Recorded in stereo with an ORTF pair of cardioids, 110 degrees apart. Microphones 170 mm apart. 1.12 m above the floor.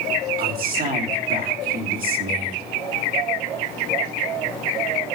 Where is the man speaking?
60° right, 2.5 m.